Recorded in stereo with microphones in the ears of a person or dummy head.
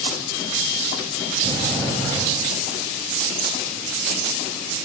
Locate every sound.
1.4 s a sliding door: 20° left (ahead or behind), 6 m